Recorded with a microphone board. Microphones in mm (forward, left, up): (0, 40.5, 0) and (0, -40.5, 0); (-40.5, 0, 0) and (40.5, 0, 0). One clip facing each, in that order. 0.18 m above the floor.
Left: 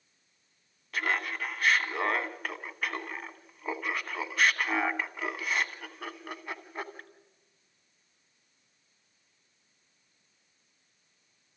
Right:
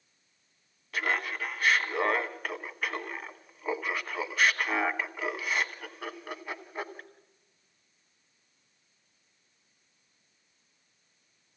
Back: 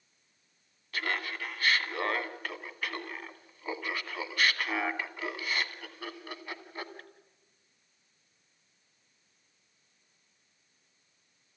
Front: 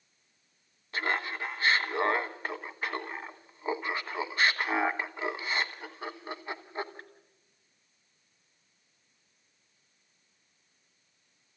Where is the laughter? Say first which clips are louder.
Even, front 3 dB; straight ahead, 1.1 m.